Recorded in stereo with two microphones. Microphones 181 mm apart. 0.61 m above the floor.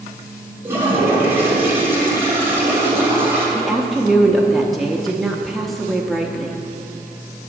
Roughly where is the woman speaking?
Centre.